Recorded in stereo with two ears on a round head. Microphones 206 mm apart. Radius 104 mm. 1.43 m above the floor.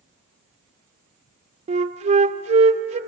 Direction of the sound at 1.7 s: 30° right (ahead or behind).